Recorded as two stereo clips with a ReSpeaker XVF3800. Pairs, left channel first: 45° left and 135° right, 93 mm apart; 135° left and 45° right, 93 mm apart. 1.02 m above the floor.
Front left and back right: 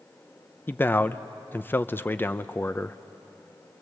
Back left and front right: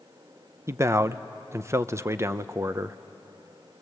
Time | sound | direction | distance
0.7 | a man speaking | 10° right | 0.6 m